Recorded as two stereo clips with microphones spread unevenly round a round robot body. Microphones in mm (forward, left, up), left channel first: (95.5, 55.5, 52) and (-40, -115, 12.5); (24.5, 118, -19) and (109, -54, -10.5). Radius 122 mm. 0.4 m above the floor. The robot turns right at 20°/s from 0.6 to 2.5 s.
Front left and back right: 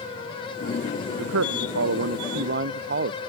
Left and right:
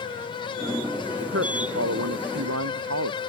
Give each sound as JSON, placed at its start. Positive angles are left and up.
{"t": 1.2, "sound": "a man speaking", "azimuth_deg": -115}